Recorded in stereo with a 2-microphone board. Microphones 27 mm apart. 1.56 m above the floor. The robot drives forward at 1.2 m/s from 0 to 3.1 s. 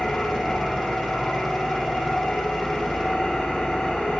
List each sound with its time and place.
0.0 s an engine running: 80° left, 5 m; by 4.2 s 55° left (ahead or behind), 6 m